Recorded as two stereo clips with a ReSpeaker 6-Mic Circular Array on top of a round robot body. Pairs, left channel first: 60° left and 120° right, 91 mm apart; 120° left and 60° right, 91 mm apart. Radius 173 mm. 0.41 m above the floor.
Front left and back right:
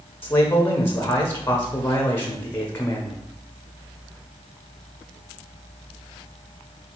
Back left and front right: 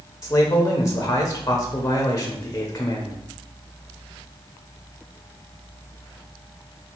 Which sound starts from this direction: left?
A man speaking, at 0.2 s.